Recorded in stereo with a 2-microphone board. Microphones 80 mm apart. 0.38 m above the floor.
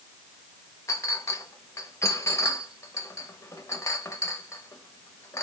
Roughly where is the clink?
Left.